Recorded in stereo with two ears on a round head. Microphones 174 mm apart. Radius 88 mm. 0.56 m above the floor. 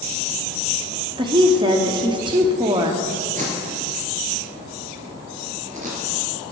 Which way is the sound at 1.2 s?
25° right (ahead or behind).